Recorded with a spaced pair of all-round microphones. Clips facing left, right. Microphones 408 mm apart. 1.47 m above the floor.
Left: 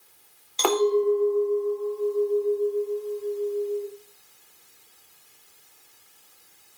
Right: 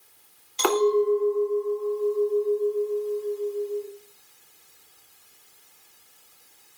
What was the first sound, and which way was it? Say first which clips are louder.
A clink: even; 25° right (ahead or behind).